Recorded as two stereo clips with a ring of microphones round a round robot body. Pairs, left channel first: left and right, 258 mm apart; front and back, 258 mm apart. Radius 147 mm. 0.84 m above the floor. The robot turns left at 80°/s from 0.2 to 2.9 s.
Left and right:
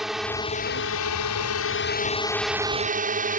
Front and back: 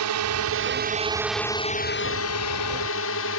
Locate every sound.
0.0 s a drone: straight behind; by 3.4 s 35° right